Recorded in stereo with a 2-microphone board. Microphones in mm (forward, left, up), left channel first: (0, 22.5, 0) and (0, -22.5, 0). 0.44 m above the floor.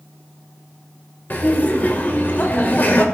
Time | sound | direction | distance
1.3 | laughter | 45° left (ahead or behind) | 1.5 m